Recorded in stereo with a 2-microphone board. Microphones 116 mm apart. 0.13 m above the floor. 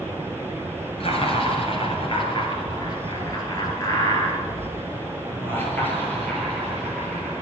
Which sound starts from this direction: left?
Laughter, at 1.0 s.